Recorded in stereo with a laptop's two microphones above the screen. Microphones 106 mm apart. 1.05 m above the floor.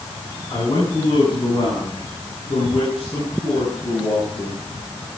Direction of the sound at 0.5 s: 45° left (ahead or behind).